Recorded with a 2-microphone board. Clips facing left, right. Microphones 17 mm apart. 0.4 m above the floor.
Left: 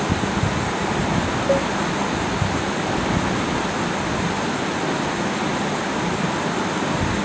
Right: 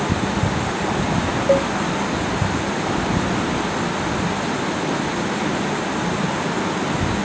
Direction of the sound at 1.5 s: 15° right (ahead or behind).